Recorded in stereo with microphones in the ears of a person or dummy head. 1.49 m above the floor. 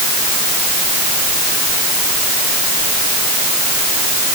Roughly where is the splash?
No splash in this recording.